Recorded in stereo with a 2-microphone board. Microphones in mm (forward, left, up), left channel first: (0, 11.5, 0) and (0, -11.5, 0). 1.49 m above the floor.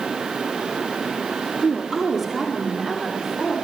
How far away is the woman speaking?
About 3.5 m.